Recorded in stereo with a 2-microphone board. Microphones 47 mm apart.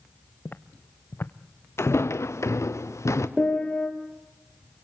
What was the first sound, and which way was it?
Footsteps, 45° left (ahead or behind).